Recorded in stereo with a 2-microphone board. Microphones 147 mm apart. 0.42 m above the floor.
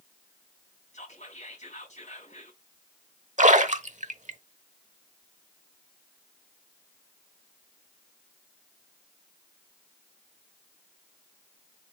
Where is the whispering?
55° left (ahead or behind), 4 m.